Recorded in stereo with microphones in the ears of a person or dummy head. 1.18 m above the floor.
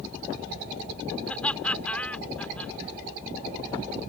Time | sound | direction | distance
1.3 | laughter | 5° left (ahead or behind) | ?